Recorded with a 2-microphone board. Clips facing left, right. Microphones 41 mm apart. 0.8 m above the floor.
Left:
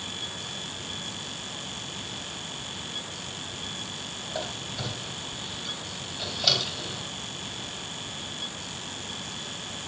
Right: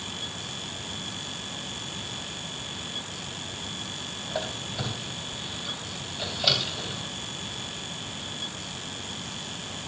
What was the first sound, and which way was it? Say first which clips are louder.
A squeak: right 2 dB; 10° right (ahead or behind).